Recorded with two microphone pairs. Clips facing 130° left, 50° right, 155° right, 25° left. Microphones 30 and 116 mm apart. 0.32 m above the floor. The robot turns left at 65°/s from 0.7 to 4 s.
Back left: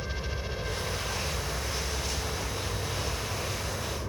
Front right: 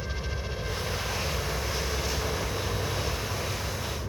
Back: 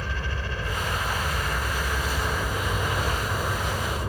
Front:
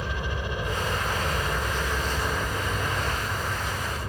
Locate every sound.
0.0 s a helicopter: 50° left; by 4.1 s 165° right